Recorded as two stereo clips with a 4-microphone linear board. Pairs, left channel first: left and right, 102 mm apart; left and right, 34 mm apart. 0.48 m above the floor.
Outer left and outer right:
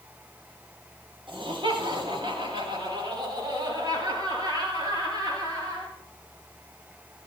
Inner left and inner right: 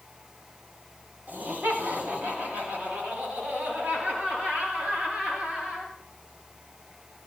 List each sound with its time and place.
1.3 s laughter: 65° right (ahead or behind), 7 m; by 5.9 s 40° right (ahead or behind), 11.5 m